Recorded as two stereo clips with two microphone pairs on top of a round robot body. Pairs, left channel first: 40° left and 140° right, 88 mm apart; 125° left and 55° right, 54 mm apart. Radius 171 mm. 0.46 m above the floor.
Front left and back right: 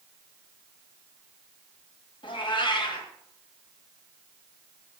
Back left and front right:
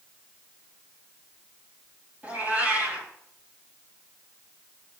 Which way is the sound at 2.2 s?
15° left.